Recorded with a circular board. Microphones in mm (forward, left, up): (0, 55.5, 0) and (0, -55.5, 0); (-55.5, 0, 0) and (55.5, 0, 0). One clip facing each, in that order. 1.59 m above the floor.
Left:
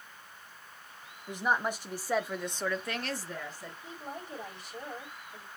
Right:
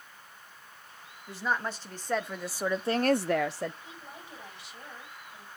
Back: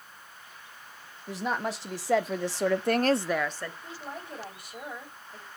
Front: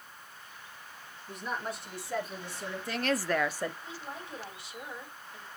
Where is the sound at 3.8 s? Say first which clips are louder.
Left 5 dB, back 2 dB; 135° left, 6.5 m.